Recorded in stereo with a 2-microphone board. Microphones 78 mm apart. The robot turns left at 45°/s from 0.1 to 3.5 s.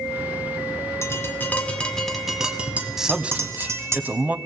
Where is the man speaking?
5° right (ahead or behind), 1.2 m; by 4.4 s 20° right (ahead or behind), 1.2 m.